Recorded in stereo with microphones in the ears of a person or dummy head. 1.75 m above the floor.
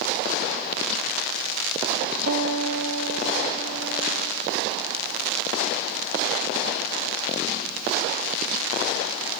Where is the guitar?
80° right, 1.2 m.